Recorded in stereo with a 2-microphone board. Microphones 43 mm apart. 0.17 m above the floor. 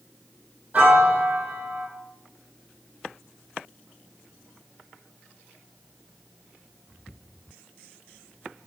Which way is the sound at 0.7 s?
35° right (ahead or behind).